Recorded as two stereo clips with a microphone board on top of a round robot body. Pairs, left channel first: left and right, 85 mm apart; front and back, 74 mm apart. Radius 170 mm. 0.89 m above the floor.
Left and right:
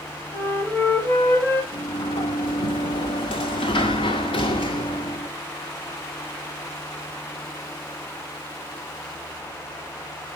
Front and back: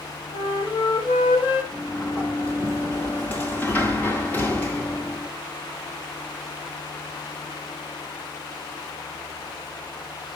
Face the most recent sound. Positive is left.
turn(degrees=65)